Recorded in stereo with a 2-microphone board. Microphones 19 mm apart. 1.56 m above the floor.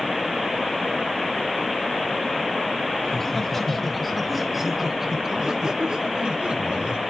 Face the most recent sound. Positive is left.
turn(degrees=-60)  # may be behind; listen again after turning